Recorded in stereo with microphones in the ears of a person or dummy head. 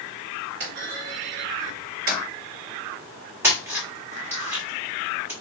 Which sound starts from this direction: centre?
A splash, at 3.4 s.